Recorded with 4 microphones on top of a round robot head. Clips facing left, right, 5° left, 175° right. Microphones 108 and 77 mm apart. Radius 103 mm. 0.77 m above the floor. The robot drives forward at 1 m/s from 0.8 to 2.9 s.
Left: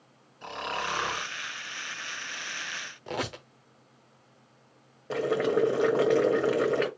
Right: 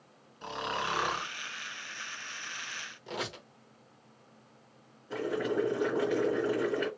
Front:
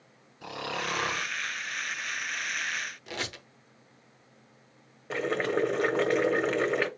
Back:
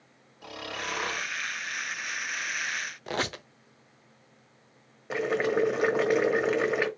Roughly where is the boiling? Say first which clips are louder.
Left 6 dB, back 2 dB; left.